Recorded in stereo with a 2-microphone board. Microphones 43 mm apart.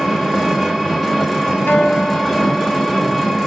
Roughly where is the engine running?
Centre.